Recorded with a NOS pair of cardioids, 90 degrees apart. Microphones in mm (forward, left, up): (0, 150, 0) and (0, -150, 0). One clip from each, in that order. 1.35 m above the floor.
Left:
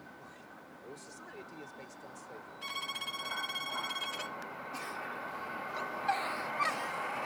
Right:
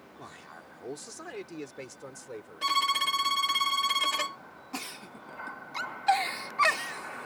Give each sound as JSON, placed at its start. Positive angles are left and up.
{"t": 0.2, "sound": "a man speaking", "azimuth_deg": -70}
{"t": 2.6, "sound": "a violin", "azimuth_deg": -65}
{"t": 4.7, "sound": "a giggle", "azimuth_deg": -65}